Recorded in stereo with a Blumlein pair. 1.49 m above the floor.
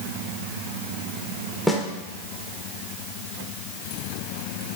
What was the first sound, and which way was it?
A snare drum, 5° right.